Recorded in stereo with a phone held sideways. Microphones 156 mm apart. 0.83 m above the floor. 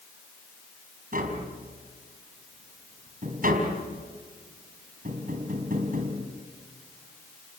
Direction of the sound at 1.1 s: 65° right (ahead or behind).